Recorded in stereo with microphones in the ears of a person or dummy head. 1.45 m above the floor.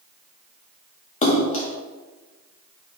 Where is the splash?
40° left (ahead or behind), 0.6 m.